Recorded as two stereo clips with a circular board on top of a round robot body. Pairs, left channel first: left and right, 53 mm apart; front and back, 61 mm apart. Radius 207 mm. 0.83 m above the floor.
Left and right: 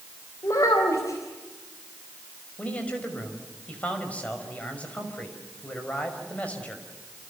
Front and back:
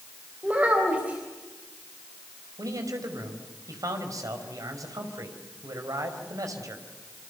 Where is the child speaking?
115° left, 3.5 m.